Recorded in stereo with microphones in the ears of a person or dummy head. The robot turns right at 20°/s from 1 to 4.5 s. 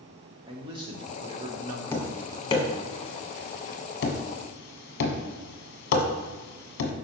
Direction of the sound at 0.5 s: 25° right (ahead or behind).